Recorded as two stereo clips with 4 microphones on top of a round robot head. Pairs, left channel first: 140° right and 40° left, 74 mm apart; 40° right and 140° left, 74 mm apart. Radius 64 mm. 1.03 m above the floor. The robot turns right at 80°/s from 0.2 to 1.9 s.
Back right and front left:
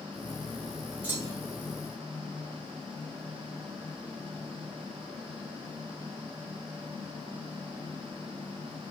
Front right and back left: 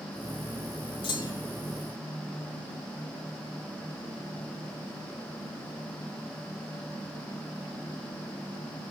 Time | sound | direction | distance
1.0 | a clunk | 30° right | 2 m